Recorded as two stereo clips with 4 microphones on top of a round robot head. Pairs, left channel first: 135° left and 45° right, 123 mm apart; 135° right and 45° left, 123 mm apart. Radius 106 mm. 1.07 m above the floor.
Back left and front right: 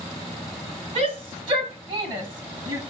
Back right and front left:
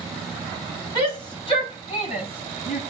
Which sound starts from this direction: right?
A shout, at 0.9 s.